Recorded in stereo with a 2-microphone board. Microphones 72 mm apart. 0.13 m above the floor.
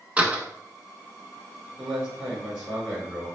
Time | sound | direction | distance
0.2 | a door slam | 20° right (ahead or behind) | 0.7 m
1.8 | a man speaking | 5° right (ahead or behind) | 1.9 m